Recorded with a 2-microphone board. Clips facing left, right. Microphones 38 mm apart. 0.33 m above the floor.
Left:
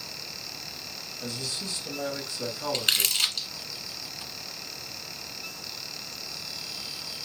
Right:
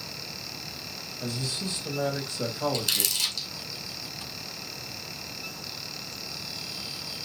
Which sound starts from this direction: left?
Crumpling, at 2.7 s.